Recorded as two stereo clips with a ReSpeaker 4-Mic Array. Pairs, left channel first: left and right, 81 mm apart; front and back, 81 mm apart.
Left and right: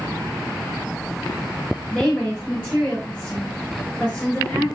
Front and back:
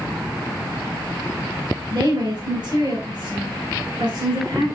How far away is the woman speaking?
About 4 m.